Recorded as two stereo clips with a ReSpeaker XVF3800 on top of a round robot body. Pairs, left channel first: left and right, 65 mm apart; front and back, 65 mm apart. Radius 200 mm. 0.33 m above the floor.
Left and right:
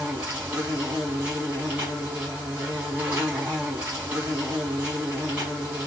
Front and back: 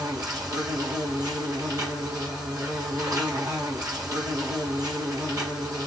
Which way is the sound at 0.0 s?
155° right.